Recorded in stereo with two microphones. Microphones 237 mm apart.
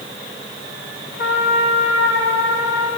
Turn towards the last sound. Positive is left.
turn(degrees=50)  # may be behind; listen again after turning